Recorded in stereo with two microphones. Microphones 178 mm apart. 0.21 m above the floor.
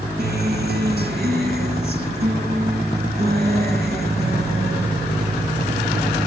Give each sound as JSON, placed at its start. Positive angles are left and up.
{"t": 0.2, "sound": "a guitar", "side_deg": -65, "distance_m": 1.8}